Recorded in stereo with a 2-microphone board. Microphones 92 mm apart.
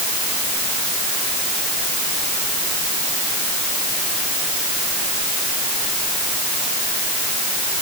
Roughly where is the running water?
No running water in this recording.